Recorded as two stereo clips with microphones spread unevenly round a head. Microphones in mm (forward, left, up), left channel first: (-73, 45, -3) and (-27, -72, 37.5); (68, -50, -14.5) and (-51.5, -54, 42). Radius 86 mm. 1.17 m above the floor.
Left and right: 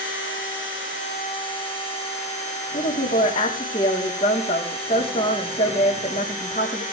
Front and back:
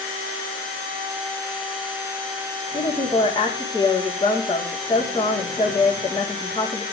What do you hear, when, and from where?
2.7 s a woman speaking: 60° left, 3.5 m